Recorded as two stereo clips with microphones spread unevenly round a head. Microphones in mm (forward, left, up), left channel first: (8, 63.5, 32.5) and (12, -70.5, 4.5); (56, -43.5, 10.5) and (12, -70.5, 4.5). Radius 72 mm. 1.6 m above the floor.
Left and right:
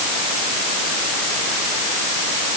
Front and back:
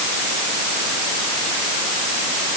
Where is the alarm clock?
I don't hear an alarm clock.